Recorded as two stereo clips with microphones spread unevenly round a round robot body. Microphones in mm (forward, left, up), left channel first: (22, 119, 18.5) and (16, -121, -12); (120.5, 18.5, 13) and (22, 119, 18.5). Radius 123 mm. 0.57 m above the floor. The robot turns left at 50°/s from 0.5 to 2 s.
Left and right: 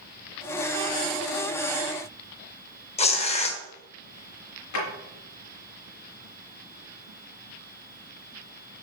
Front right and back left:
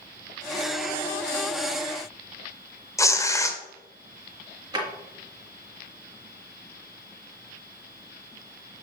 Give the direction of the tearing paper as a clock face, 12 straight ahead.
11 o'clock.